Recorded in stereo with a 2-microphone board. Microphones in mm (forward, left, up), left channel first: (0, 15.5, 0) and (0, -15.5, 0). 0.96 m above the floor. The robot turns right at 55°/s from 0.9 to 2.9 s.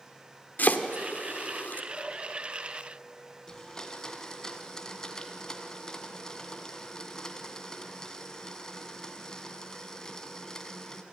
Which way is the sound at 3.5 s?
20° left (ahead or behind).